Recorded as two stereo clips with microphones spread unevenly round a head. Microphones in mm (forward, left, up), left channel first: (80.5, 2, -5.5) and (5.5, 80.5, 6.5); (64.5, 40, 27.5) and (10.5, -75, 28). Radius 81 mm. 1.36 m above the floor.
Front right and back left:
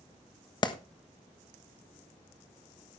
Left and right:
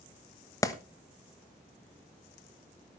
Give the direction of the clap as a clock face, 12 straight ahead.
12 o'clock.